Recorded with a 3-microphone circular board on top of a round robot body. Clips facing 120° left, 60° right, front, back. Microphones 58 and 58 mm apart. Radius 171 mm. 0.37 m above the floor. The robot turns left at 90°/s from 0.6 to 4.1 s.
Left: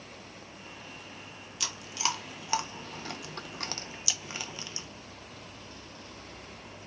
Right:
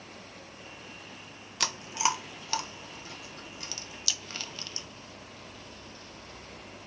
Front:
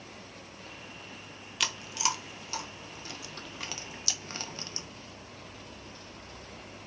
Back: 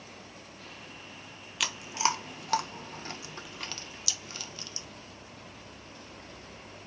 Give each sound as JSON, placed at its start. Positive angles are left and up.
{"t": 1.6, "sound": "chewing", "azimuth_deg": -90, "distance_m": 0.8}